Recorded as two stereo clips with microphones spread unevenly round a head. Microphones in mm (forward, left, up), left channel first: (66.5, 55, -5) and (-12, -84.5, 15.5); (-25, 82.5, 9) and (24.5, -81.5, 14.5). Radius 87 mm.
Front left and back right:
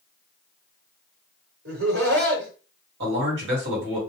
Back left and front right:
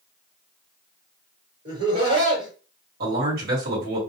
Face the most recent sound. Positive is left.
turn(degrees=-110)